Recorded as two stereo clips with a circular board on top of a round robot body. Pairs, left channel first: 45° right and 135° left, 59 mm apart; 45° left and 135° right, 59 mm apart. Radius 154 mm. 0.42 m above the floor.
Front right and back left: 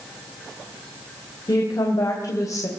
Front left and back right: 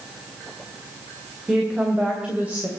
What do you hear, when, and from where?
1.5 s a woman speaking: 55° right, 3 m; by 2.7 s 70° right, 3 m